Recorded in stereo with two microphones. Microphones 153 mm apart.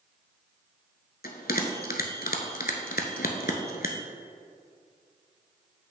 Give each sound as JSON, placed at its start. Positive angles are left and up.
{"t": 1.2, "sound": "a bell", "side_deg": 75, "distance_m": 0.9}